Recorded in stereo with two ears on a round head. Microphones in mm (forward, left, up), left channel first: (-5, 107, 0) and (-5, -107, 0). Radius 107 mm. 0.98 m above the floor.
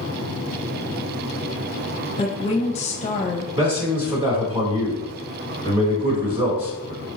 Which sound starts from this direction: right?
A man speaking, at 3.5 s.